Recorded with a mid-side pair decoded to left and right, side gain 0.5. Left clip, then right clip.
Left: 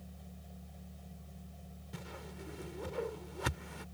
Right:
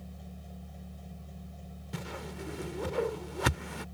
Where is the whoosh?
50° right.